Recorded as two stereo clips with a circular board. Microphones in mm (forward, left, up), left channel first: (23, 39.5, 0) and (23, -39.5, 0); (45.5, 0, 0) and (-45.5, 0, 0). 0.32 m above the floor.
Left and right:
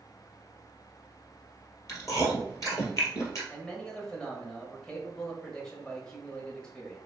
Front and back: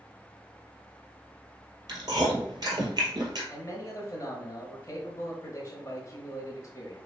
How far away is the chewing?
About 2 m.